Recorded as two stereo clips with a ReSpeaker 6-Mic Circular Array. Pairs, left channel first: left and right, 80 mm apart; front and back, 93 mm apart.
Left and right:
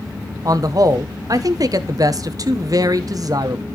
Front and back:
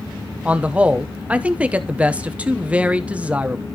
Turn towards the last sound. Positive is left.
turn(degrees=-105)